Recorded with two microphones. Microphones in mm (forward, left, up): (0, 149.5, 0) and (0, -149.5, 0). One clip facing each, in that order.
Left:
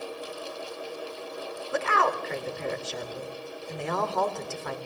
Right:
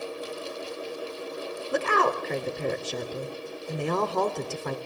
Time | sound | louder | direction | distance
1.7 | a woman speaking | right 3 dB | 40° right (ahead or behind) | 2 m